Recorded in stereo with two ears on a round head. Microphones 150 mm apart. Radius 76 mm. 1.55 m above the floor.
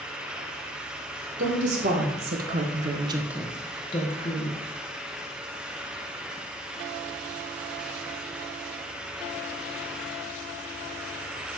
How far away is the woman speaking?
About 1.9 m.